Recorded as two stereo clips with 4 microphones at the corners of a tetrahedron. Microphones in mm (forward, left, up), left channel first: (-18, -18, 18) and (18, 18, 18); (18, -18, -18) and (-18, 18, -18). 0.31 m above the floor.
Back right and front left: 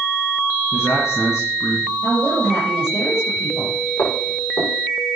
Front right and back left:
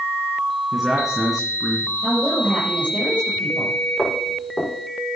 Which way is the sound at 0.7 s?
140° right.